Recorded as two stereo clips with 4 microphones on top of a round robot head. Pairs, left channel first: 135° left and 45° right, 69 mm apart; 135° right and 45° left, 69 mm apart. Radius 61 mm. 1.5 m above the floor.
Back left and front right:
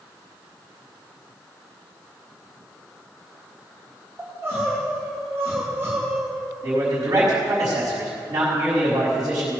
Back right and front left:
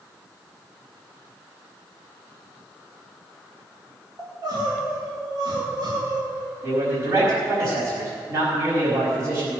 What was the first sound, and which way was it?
Crying, 10° left.